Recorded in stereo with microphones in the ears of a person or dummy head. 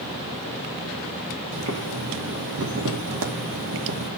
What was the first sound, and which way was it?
Boiling, 70° right (ahead or behind).